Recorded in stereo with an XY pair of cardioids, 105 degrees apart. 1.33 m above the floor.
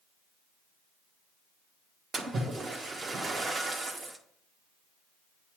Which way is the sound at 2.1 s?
40° right.